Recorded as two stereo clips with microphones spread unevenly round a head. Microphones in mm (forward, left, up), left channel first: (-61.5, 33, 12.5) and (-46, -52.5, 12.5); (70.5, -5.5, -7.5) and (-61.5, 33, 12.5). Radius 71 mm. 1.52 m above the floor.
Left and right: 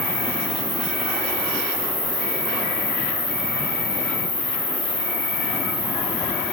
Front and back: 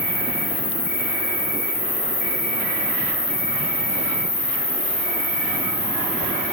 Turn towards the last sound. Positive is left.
turn(degrees=5)